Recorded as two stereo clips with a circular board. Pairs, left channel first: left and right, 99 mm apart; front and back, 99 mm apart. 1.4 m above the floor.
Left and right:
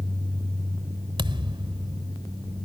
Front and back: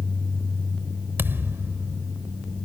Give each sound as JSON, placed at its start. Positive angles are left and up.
{"t": 1.2, "sound": "a thud", "azimuth_deg": -115}